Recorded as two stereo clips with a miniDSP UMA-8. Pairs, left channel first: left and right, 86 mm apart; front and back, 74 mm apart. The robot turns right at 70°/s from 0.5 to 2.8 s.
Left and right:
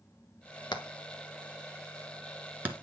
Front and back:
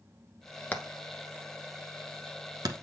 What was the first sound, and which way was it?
Hammering, 65° left.